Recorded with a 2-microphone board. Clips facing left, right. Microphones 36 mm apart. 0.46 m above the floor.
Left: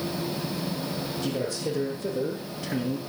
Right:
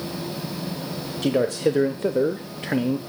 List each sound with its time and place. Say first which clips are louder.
1.2 s a man speaking: right 11 dB; 60° right (ahead or behind), 2.0 m; by 3.0 s 30° right (ahead or behind), 1.1 m